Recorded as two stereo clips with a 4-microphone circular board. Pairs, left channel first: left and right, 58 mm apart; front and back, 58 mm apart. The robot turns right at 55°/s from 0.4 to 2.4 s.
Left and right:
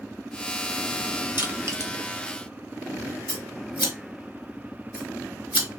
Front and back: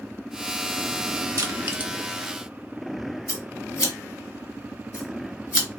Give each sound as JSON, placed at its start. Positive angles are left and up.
{"t": 1.4, "sound": "crushing", "azimuth_deg": -145, "distance_m": 0.8}
{"t": 3.3, "sound": "scissors", "azimuth_deg": -30, "distance_m": 2.5}